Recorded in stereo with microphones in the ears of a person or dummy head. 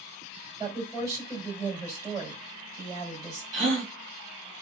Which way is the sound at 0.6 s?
20° right (ahead or behind).